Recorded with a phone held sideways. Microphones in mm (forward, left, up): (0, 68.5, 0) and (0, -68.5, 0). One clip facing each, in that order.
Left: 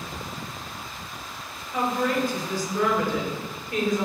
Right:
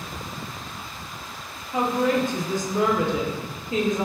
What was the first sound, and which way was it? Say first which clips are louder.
A woman speaking: right 3 dB; 20° right (ahead or behind).